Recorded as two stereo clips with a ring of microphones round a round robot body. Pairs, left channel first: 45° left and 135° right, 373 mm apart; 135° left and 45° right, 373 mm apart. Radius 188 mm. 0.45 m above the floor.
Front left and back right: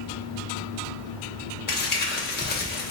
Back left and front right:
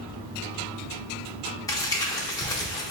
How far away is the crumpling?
About 0.8 m.